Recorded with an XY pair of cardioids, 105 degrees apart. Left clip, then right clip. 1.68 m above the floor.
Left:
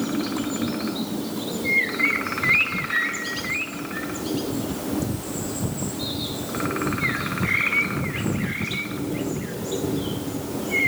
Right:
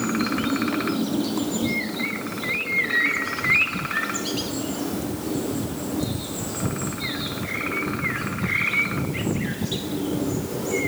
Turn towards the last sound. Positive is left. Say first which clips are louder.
# right 3 dB
turn(degrees=-40)